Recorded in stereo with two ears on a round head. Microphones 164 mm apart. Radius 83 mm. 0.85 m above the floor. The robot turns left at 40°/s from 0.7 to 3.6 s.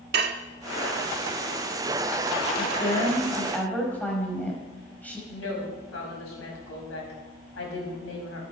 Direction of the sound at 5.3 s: 80° left.